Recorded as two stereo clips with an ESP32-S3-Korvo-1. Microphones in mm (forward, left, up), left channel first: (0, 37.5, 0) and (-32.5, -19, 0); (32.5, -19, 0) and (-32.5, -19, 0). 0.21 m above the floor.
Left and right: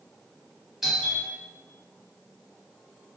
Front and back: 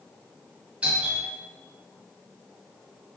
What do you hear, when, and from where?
0.8 s a doorbell: 165° left, 1.4 m